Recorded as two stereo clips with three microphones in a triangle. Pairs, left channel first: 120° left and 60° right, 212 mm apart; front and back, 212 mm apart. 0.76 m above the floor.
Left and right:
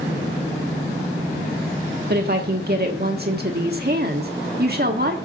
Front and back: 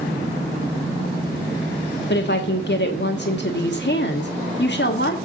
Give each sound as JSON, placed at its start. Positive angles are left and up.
{"t": 2.1, "sound": "a woman speaking", "azimuth_deg": -25, "distance_m": 1.4}